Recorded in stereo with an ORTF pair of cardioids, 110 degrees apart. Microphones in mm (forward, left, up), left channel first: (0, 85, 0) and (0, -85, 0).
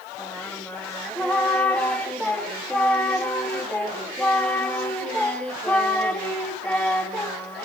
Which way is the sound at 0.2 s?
5° left.